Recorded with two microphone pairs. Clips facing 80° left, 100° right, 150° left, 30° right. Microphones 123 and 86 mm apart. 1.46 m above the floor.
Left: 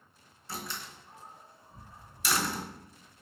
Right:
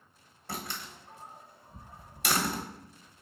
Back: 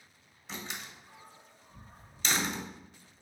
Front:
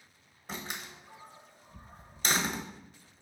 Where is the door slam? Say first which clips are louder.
Right 1 dB, front 2 dB; 70° right, 1.1 m.